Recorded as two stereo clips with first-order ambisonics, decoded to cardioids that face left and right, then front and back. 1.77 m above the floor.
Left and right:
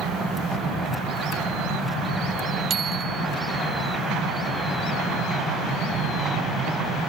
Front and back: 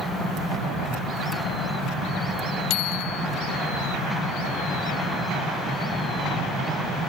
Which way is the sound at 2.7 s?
25° right.